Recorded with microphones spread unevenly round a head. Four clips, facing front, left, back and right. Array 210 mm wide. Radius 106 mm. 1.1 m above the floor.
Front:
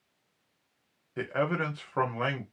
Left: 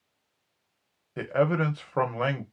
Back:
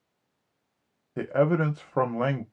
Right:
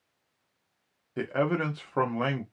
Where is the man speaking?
175° left, 0.6 m.